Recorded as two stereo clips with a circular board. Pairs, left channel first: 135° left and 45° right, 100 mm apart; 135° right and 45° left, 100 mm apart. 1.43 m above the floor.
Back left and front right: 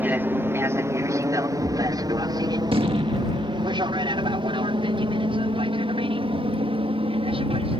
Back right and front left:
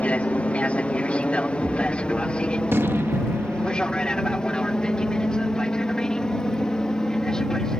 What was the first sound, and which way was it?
An aircraft, 80° right.